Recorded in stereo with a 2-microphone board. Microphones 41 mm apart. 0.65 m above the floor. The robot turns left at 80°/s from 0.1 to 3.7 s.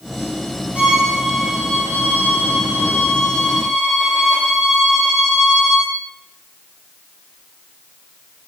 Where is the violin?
140° right, 5 m; by 6.0 s 15° right, 5 m.